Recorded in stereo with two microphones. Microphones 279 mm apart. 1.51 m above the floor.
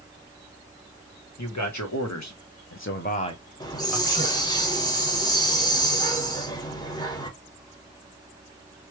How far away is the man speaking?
About 1.2 m.